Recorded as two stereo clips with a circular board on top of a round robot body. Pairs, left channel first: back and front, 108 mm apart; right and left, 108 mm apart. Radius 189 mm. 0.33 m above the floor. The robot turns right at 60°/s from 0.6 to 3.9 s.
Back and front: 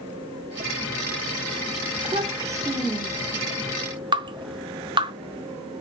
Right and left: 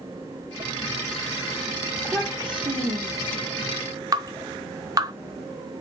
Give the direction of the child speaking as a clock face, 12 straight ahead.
11 o'clock.